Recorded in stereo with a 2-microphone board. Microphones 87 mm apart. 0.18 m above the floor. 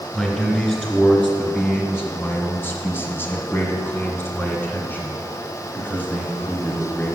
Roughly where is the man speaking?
Centre.